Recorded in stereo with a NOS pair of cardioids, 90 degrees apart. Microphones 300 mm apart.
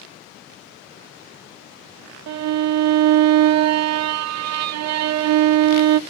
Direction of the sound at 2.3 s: 55° right.